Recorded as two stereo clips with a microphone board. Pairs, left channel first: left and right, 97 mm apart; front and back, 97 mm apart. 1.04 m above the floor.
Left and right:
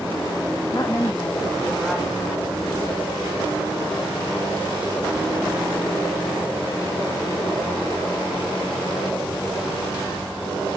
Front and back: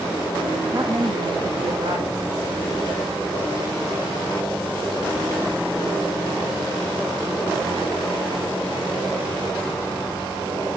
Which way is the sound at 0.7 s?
130° left.